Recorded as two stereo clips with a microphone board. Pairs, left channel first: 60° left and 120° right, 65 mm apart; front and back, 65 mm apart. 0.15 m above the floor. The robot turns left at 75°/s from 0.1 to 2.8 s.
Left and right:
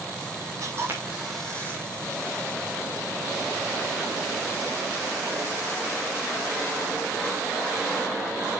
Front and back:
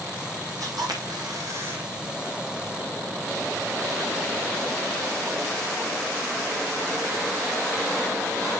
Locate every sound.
0.6 s a camera shutter: 155° right, 3.5 m; by 1.8 s 110° left, 3.5 m